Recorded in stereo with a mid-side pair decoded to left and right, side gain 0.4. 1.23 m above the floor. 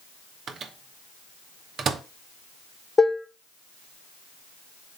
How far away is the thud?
I don't hear a thud.